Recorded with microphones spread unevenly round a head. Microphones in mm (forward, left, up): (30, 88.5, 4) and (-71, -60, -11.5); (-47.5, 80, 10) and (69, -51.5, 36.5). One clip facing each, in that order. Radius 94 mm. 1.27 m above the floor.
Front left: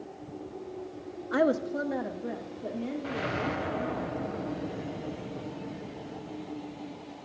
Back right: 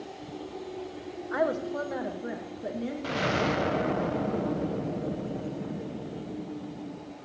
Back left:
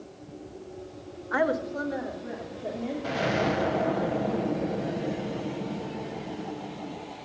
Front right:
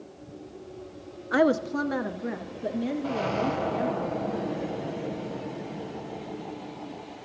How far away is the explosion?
About 0.6 m.